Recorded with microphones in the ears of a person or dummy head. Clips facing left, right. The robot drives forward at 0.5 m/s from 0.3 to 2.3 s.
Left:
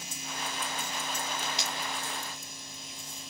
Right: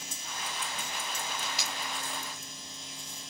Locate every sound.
1.4 s tape being pulled: 5° right (ahead or behind), 1.2 m